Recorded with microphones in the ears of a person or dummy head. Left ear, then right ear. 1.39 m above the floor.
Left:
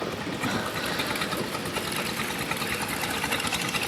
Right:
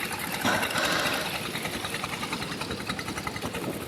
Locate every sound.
0.4 s breathing: 50° right (ahead or behind), 0.5 m